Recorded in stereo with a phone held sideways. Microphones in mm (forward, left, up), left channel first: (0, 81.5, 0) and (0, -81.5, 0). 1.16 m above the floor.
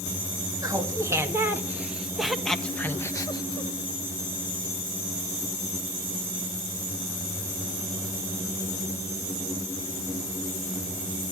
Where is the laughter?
20° right (ahead or behind), 2 m; by 3.7 s 35° left (ahead or behind), 1.2 m.